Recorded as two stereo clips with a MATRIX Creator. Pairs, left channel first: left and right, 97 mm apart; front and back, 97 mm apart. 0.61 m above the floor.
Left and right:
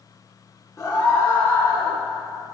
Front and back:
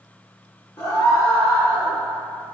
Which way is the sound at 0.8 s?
35° left.